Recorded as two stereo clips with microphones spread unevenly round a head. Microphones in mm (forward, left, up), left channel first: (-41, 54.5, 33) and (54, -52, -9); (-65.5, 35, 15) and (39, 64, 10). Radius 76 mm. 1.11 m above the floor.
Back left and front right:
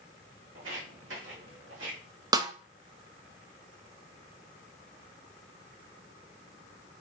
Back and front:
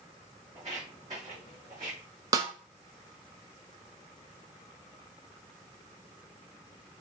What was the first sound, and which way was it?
Footsteps, 55° right.